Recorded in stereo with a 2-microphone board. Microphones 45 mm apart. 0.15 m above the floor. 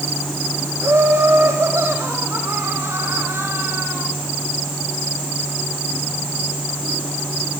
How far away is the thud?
I don't hear a thud.